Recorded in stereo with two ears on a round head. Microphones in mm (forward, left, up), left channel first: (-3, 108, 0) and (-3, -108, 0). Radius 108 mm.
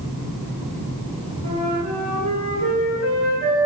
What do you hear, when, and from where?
1.4 s a flute: 75° right (ahead or behind), 2 m